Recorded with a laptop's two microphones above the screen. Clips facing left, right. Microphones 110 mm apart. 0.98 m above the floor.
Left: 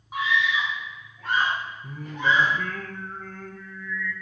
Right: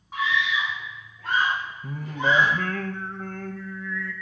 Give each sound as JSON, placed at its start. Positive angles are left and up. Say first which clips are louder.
{"t": 0.1, "sound": "a scream", "louder": "left 1 dB", "side_deg": 10, "distance_m": 0.9}
{"t": 1.8, "sound": "singing", "louder": "right 1 dB", "side_deg": -70, "distance_m": 0.6}